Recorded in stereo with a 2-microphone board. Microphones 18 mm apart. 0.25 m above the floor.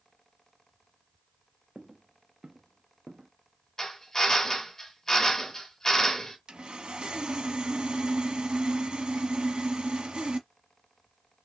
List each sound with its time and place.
1.8 s footsteps: 60° right (ahead or behind), 0.6 m; by 3.3 s 80° right, 1.3 m
3.8 s a drill: 25° left (ahead or behind), 1.9 m
6.5 s sawing: 55° right (ahead or behind), 1.1 m